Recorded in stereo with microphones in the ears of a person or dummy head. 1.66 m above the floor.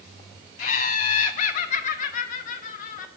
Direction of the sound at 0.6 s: 50° left (ahead or behind).